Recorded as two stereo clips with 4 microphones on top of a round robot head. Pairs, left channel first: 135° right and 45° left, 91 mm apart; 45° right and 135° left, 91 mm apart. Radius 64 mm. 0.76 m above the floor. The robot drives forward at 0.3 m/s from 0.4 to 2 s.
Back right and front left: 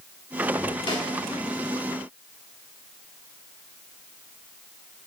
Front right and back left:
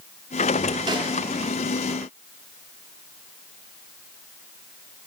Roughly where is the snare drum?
Behind.